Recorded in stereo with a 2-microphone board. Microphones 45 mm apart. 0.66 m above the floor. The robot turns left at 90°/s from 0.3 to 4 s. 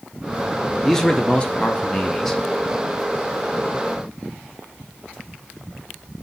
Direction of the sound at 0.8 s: 10° left (ahead or behind).